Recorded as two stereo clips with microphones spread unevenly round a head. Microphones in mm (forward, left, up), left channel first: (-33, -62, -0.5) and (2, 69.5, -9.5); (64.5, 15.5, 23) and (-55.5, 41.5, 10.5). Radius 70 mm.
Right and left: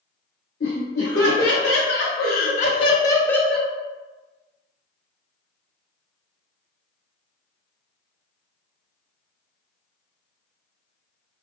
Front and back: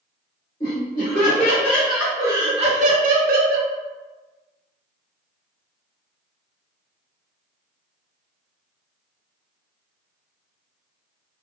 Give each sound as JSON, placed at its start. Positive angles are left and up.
{"t": 0.6, "sound": "laughter", "azimuth_deg": -75, "distance_m": 1.2}